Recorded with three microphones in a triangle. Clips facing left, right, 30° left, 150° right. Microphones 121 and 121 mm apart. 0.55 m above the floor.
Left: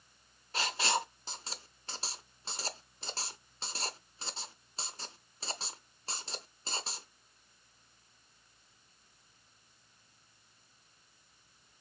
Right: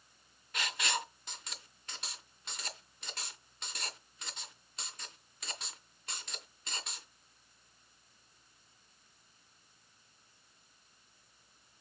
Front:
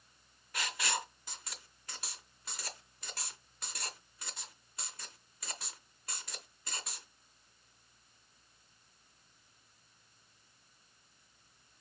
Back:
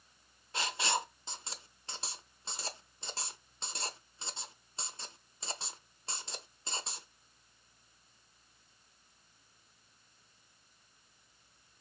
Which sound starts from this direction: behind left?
Writing, at 0.5 s.